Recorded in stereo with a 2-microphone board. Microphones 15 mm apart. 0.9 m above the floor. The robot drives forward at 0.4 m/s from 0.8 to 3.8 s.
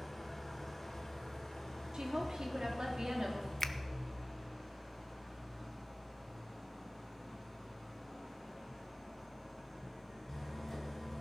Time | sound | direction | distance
0.0 | an engine running | 15° left (ahead or behind) | 3 m
1.9 | a woman speaking | 65° right (ahead or behind) | 2 m
3.6 | a finger snap | 30° left (ahead or behind) | 0.6 m